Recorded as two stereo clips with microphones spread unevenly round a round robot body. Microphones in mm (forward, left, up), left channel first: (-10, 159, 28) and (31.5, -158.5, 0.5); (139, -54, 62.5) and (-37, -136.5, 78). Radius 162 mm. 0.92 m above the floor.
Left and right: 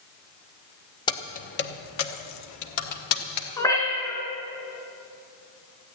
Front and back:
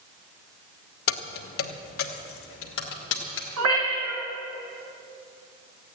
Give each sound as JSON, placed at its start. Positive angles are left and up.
{"t": 1.1, "sound": "keys jangling", "azimuth_deg": 20, "distance_m": 0.8}
{"t": 3.6, "sound": "a cat meowing", "azimuth_deg": 180, "distance_m": 4.0}